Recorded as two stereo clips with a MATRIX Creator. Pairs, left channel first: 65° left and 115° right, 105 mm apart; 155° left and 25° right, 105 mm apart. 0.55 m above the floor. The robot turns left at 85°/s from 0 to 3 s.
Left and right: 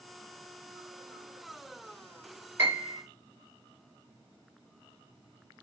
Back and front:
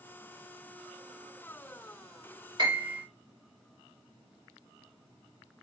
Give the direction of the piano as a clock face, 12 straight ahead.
2 o'clock.